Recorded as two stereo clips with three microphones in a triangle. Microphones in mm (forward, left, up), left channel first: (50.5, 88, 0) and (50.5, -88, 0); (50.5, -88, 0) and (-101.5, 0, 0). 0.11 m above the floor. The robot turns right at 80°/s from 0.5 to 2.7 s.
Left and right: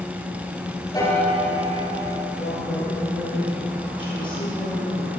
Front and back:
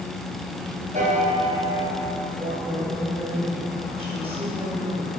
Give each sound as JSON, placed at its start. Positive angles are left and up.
{"t": 0.9, "sound": "a piano", "azimuth_deg": 150, "distance_m": 1.7}
{"t": 2.4, "sound": "a woman speaking", "azimuth_deg": 105, "distance_m": 1.7}